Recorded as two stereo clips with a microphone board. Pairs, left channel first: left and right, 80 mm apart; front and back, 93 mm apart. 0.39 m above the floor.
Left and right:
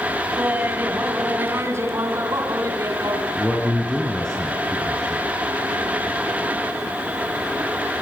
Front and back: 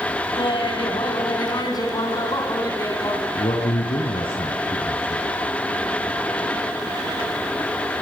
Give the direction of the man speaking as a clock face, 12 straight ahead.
12 o'clock.